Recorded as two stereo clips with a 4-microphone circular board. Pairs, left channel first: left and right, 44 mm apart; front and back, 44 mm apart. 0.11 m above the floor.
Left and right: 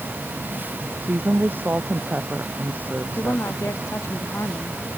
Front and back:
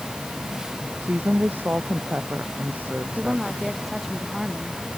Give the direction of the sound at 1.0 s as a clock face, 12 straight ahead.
4 o'clock.